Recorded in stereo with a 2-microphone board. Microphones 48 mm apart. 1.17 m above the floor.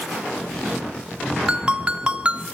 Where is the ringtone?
25° right (ahead or behind), 1.4 m.